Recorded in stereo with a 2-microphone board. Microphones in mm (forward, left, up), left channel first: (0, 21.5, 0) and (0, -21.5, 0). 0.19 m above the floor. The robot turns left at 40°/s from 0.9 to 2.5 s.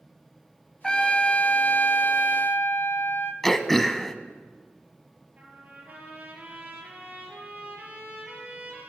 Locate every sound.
0.8 s a trumpet: 165° left, 0.8 m; by 3.3 s 100° left, 0.8 m
3.4 s throat clearing: 10° left (ahead or behind), 0.6 m
5.4 s a trumpet: 35° right (ahead or behind), 3 m